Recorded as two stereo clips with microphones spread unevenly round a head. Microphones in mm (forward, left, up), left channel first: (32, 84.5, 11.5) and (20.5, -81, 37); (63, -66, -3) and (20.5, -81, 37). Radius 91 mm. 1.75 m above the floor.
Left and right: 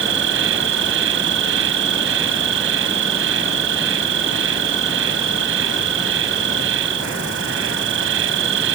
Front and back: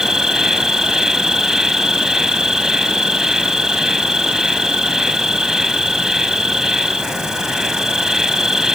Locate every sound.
0.0 s an insect: 85° right